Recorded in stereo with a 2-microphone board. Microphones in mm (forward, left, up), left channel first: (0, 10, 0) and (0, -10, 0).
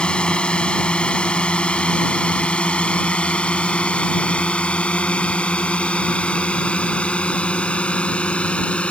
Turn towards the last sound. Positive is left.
turn(degrees=70)  # may be behind; listen again after turning